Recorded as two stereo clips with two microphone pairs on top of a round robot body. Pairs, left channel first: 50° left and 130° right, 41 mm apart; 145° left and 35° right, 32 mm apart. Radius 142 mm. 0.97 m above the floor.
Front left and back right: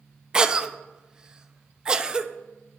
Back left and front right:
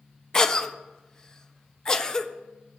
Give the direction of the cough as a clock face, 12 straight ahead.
6 o'clock.